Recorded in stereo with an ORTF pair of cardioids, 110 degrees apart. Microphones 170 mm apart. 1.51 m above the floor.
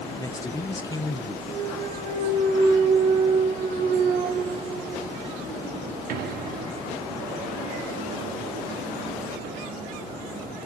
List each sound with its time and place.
0.2 s a man speaking: 20° left, 0.8 m
1.5 s a clunk: 65° right, 1.6 m